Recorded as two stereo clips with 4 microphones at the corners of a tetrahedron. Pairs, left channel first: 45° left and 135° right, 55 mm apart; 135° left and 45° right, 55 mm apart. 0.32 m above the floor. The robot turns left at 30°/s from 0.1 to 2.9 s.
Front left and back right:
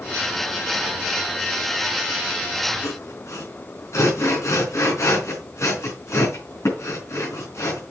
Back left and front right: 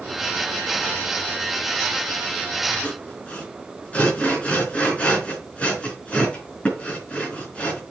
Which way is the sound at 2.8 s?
70° left.